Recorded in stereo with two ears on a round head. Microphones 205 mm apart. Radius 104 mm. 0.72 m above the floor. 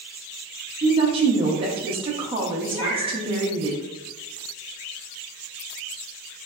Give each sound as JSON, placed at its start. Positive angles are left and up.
{"t": 0.8, "sound": "a woman speaking", "side_deg": -25, "distance_m": 0.5}
{"t": 2.7, "sound": "a cat meowing", "side_deg": 70, "distance_m": 1.5}